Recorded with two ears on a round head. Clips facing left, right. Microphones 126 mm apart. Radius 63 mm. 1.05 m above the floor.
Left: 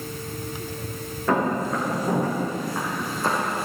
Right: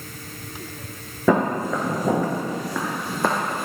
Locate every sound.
1.3 s footsteps: 75° right (ahead or behind), 3.5 m; by 3.6 s 45° right (ahead or behind), 2 m